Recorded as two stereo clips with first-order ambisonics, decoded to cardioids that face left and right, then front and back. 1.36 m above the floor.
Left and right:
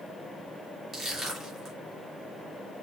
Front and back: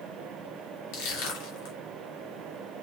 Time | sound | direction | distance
0.9 | crushing | straight ahead | 1.9 m